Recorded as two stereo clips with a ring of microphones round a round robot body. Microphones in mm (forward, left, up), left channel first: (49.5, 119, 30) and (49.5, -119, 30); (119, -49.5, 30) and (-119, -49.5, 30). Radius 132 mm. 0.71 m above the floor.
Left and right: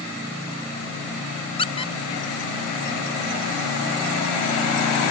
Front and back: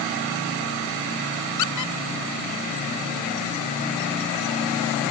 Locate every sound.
1.6 s a squeak: 20° left